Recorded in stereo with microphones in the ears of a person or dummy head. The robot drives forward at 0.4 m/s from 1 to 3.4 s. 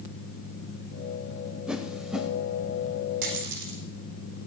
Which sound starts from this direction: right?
A dropped coin, at 3.2 s.